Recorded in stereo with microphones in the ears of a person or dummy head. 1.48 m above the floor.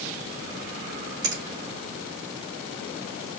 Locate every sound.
1.2 s a finger snap: 65° right (ahead or behind), 3.5 m